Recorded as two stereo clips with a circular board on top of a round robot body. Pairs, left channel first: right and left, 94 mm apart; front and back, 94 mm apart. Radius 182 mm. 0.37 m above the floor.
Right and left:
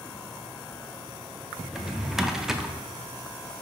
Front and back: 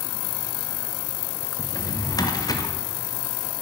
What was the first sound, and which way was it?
A drawer, 10° left.